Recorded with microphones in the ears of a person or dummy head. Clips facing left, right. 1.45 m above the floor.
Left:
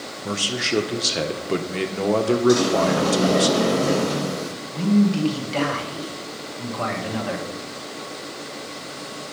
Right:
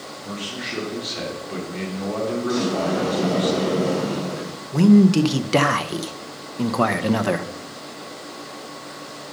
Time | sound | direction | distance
0.2 | a man speaking | 70° left (ahead or behind) | 1.4 m
2.5 | a sliding door | 70° left (ahead or behind) | 3 m
4.7 | a man speaking | 70° right (ahead or behind) | 0.7 m